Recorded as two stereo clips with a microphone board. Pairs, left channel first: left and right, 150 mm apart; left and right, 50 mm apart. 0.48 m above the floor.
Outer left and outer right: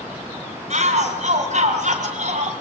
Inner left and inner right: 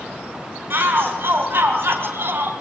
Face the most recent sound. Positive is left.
turn(degrees=-60)  # may be behind; listen again after turning